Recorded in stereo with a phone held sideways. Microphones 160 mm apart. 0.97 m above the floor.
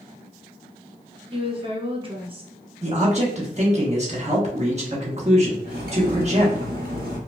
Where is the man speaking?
45° right (ahead or behind), 1.1 m.